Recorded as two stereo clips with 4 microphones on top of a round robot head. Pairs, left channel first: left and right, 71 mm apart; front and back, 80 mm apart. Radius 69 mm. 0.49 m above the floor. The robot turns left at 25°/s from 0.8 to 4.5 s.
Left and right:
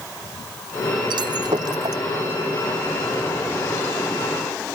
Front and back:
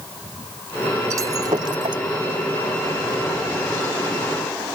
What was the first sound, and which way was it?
Breaking glass, 115° right.